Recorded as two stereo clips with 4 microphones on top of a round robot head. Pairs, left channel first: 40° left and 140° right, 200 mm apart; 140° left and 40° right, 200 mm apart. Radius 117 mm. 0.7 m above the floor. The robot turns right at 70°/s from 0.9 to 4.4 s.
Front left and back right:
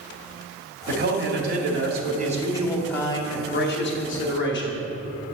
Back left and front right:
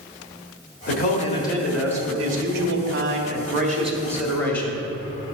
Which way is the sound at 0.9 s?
175° left.